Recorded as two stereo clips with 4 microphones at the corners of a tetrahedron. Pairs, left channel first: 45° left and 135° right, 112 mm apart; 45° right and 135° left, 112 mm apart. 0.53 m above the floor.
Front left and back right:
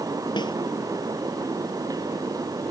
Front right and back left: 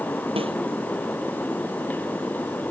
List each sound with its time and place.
0.4 s a snare drum: 95° left